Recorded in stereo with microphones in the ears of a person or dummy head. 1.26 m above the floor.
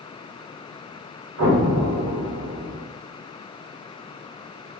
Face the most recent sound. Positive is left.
turn(degrees=-70)  # may be behind; listen again after turning